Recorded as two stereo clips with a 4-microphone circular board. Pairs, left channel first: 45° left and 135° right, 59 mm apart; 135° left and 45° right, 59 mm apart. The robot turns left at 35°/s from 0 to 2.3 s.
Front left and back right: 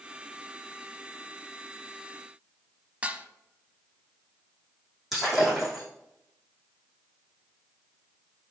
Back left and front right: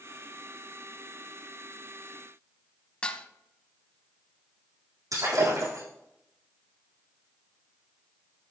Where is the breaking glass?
50° right, 5 m.